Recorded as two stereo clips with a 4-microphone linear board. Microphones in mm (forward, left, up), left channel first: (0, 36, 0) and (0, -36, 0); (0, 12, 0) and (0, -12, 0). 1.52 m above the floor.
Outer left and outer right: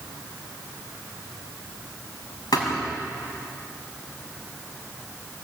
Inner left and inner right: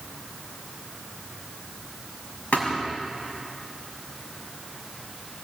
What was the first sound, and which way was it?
A thud, 80° left.